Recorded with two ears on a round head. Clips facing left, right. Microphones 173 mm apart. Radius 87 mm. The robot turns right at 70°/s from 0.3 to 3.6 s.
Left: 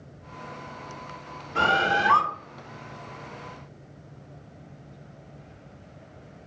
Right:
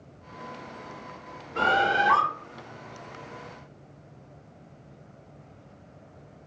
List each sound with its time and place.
1.6 s a bird: 75° left, 0.9 m; by 2.2 s 120° left, 0.9 m